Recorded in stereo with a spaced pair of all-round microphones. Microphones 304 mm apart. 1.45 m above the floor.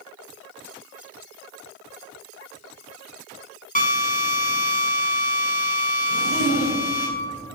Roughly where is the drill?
Left.